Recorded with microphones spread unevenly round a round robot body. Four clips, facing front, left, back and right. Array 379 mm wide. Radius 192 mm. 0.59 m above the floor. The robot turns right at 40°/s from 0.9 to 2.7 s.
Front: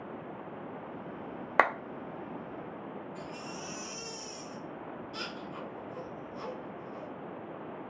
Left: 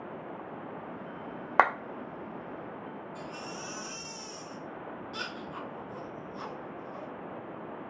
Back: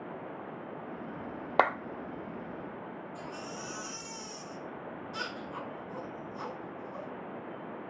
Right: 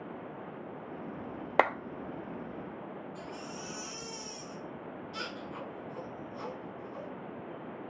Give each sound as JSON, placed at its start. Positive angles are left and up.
{"t": 1.6, "sound": "a clap", "azimuth_deg": -100, "distance_m": 0.9}
{"t": 3.1, "sound": "a baby crying", "azimuth_deg": 155, "distance_m": 3.5}